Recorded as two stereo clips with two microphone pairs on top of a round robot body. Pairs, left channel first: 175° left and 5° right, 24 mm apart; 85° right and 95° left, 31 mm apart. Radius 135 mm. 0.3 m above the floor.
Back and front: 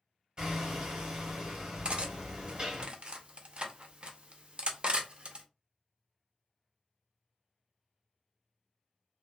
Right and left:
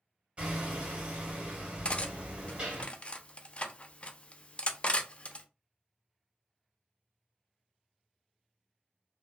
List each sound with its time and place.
0.4 s hammering: 45° left, 1.6 m
1.9 s cutlery clinking: 45° right, 0.6 m